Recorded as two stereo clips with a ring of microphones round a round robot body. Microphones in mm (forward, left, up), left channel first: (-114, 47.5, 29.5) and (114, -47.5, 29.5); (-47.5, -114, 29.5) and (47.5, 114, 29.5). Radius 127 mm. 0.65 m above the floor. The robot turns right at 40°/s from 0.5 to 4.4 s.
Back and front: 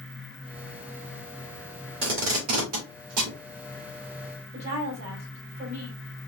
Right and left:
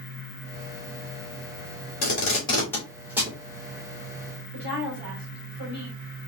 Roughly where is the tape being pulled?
Ahead right.